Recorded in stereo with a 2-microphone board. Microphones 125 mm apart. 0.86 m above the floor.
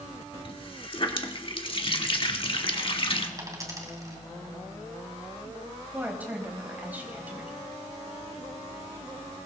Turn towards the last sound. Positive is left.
turn(degrees=-15)  # may be behind; listen again after turning